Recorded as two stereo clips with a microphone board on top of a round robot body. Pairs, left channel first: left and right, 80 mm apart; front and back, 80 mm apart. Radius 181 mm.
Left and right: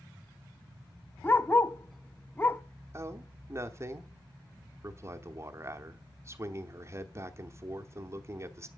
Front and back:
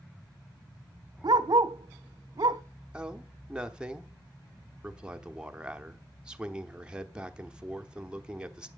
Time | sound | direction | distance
1.2 | a dog barking | 155° left | 0.7 m
2.9 | a man speaking | 110° right | 1.1 m